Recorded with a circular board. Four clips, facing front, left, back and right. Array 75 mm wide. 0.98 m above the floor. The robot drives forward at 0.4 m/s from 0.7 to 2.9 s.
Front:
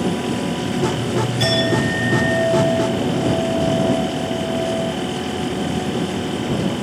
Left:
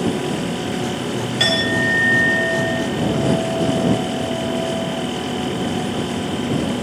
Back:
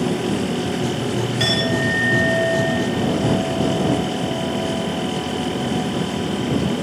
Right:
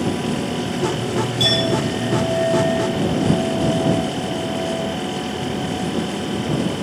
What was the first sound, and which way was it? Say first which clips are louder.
A clink: left 3 dB, front 2 dB; 105° left.